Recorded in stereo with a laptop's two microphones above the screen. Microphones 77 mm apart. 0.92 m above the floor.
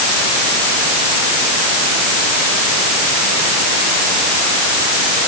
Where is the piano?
No piano in this recording.